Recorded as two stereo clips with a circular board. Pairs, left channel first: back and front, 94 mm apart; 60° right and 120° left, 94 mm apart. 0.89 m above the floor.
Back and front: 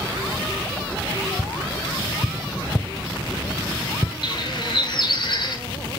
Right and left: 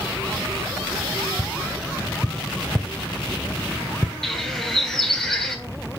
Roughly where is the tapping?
Behind right.